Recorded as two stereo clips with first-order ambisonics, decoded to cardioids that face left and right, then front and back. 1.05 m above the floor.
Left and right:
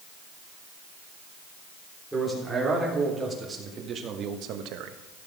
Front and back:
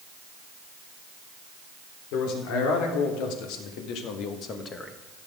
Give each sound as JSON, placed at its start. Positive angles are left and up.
{"t": 2.1, "sound": "a man speaking", "azimuth_deg": -5, "distance_m": 3.5}